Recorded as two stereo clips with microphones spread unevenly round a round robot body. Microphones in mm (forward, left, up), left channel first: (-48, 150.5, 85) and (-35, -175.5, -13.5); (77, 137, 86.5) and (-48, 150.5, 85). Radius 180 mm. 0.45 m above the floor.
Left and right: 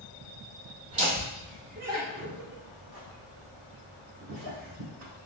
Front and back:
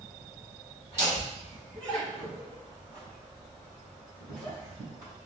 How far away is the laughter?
About 1.5 m.